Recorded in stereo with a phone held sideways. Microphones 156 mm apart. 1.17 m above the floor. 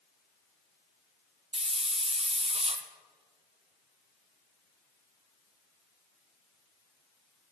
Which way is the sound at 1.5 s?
40° right (ahead or behind).